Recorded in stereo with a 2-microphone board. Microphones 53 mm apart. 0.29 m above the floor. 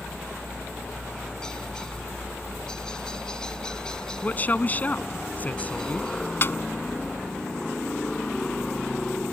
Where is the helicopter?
15° left (ahead or behind).